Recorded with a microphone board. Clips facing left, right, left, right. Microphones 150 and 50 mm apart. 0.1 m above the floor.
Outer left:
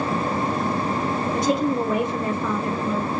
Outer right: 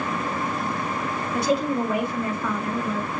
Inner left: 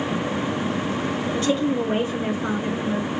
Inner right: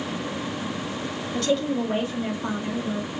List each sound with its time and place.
1.3 s a woman speaking: 20° left (ahead or behind), 1.7 m; by 3.1 s 25° left (ahead or behind), 1.5 m